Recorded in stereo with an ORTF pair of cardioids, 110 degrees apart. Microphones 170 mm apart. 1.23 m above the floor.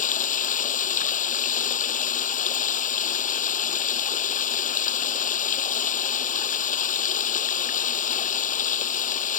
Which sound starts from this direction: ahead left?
Running water, at 0.0 s.